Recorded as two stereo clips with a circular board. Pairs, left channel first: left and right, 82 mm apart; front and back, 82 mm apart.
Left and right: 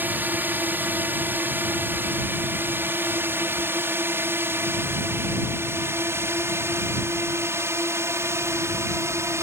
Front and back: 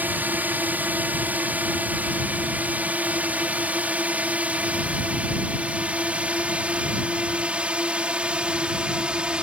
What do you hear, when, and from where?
0.0 s a drone: 135° right; by 9.4 s 110° right